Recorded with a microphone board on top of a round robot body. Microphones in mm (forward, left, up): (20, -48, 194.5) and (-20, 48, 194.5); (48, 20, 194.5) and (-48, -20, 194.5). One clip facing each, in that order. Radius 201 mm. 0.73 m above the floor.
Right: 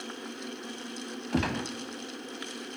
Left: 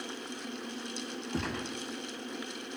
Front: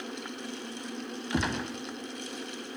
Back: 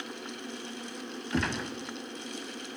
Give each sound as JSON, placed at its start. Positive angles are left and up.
{"t": 1.3, "sound": "a gunshot", "azimuth_deg": -55, "distance_m": 0.6}